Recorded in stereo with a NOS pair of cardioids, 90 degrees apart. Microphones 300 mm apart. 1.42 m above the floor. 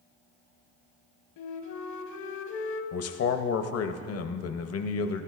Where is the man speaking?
50° left, 0.7 m.